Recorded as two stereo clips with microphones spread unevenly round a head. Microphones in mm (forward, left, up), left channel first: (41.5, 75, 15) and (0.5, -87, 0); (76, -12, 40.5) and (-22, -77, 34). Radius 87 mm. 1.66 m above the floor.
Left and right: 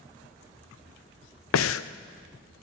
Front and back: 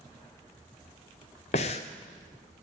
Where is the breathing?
80° left, 0.5 m.